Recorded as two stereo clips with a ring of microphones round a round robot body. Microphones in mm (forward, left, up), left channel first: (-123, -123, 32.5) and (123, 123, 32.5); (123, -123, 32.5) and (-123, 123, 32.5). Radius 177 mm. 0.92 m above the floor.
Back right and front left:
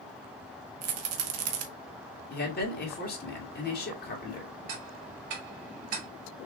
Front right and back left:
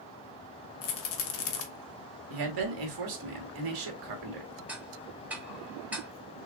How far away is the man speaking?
About 1.9 m.